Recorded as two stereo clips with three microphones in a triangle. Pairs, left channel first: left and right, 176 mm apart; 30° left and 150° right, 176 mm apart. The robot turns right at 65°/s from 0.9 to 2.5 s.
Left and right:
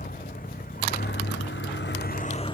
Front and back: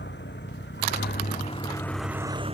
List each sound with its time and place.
0.0 s a vehicle: 50° left; by 2.5 s 155° left